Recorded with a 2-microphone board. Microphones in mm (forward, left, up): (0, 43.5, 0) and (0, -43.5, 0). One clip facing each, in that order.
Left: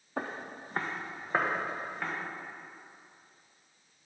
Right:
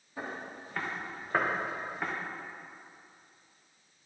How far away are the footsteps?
About 1.1 m.